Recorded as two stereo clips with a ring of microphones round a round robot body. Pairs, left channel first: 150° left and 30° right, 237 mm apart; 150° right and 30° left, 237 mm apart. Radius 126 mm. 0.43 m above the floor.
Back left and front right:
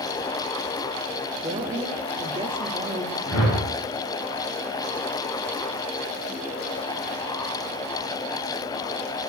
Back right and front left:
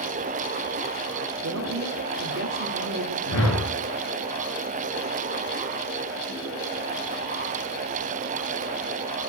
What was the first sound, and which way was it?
A woman speaking, 35° left.